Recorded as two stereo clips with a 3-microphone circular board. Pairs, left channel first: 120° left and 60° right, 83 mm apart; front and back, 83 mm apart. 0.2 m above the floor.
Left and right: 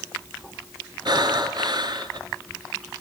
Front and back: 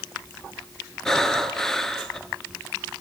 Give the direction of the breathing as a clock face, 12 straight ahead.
3 o'clock.